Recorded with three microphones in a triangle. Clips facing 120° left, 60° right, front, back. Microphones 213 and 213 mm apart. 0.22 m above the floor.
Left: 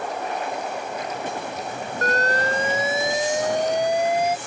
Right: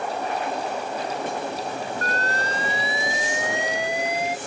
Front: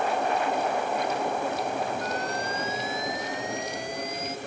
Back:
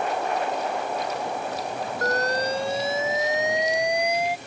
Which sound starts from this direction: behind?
An alarm, at 2.0 s.